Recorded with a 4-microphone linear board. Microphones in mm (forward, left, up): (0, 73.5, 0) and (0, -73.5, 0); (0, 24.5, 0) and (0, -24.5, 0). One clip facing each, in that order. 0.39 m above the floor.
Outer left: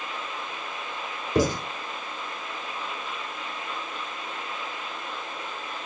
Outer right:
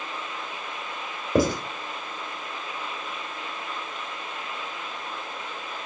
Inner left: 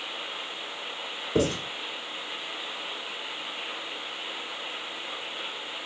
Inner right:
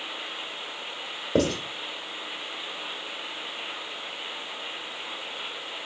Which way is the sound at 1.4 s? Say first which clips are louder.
Outer right 2 dB, inner right 1 dB; 60° right (ahead or behind).